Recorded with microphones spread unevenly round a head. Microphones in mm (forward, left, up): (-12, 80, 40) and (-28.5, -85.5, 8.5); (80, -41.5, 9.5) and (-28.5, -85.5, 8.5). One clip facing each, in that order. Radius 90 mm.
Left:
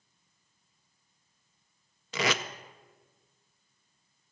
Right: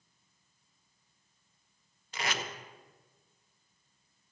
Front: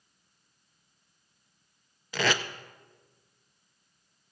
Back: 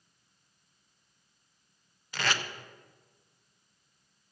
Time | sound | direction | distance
2.1 | tape being pulled | 50° left | 0.5 m